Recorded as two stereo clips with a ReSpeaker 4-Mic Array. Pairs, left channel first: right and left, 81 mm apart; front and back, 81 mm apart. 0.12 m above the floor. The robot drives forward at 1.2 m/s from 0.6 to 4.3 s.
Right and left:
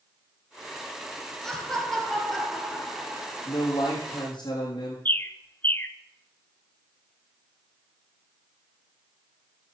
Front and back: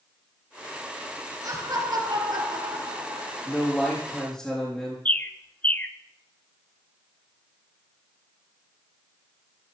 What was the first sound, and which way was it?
Laughter, 170° right.